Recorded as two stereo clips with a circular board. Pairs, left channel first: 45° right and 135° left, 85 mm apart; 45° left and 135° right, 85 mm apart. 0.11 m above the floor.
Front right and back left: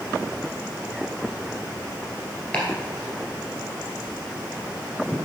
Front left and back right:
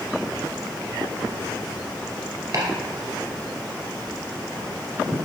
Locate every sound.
2.5 s chopping: 120° right, 2.5 m